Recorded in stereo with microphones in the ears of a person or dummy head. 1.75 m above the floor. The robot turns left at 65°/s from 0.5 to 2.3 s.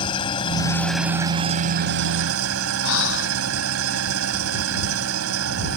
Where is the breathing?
75° left (ahead or behind).